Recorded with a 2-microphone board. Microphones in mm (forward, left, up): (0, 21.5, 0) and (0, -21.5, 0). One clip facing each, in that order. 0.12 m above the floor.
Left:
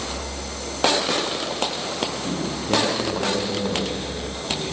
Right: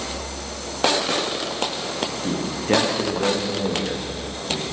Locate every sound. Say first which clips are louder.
2.2 s a man speaking: right 5 dB; 80° right, 7 m